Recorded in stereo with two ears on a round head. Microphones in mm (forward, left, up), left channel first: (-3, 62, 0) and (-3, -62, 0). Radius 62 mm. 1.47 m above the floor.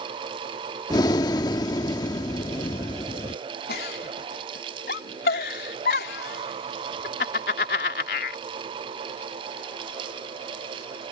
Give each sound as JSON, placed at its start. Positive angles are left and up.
{"t": 0.9, "sound": "breathing", "side_deg": 30}
{"t": 3.7, "sound": "a giggle", "side_deg": 85}